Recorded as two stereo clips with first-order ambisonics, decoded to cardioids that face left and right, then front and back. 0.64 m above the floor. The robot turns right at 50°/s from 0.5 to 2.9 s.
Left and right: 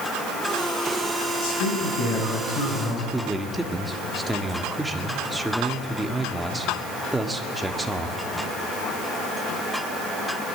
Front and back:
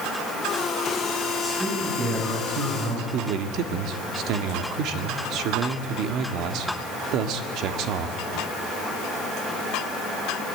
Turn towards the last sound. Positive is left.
turn(degrees=-170)